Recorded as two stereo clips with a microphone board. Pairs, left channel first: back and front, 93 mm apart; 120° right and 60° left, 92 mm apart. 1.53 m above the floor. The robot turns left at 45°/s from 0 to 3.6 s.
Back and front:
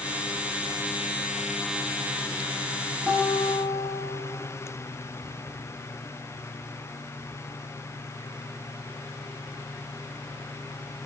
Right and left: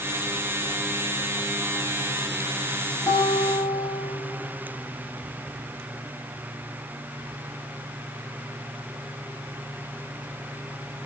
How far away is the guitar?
About 6.5 m.